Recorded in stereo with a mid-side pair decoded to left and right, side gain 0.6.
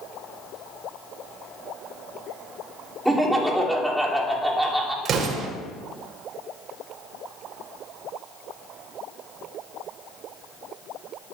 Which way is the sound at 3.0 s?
10° right.